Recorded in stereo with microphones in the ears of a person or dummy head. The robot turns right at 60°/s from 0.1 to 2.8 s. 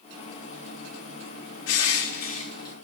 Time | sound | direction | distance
1.7 | crushing | 95° left | 2.5 m